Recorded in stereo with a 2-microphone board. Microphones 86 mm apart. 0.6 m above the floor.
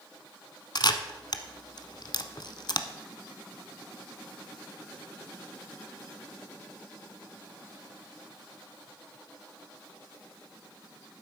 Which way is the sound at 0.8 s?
60° left (ahead or behind).